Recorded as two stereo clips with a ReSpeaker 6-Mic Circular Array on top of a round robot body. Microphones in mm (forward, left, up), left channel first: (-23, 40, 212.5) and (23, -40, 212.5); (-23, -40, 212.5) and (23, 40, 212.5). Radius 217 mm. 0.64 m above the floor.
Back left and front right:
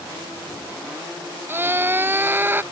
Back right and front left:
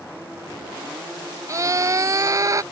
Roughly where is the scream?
Ahead.